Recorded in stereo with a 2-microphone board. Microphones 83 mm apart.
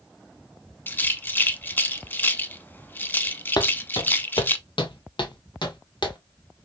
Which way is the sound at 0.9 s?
25° left (ahead or behind).